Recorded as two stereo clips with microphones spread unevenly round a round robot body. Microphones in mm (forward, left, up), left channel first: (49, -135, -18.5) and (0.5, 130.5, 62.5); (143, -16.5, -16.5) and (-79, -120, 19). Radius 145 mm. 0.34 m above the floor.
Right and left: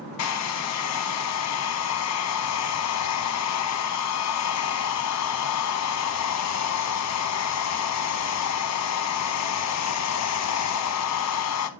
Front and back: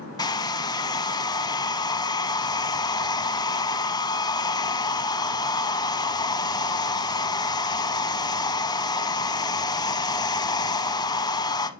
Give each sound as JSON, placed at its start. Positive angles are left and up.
{"t": 0.2, "sound": "a hair dryer", "azimuth_deg": -50, "distance_m": 0.8}